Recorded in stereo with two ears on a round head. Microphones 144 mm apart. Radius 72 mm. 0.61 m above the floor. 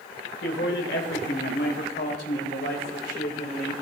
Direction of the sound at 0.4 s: 70° left (ahead or behind).